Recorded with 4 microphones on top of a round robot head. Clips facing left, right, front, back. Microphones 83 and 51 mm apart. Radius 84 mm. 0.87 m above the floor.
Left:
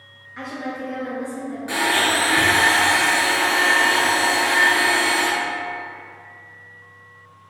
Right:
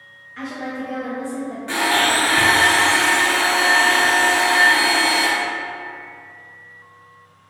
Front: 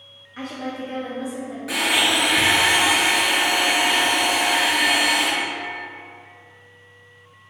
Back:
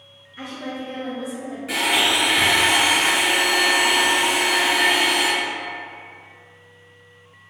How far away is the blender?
About 1.3 m.